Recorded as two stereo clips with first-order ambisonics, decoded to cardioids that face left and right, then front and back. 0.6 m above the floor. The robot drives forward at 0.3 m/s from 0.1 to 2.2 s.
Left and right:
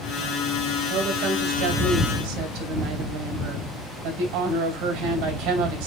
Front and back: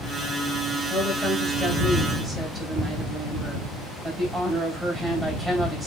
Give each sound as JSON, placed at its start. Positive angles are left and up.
{"t": 0.9, "sound": "a woman speaking", "azimuth_deg": -100, "distance_m": 3.0}